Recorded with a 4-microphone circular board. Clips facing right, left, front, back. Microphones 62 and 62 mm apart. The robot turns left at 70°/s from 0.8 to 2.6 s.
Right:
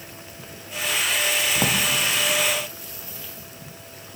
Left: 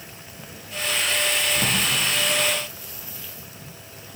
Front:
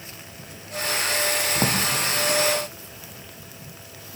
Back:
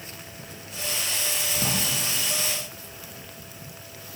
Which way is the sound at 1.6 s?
30° right.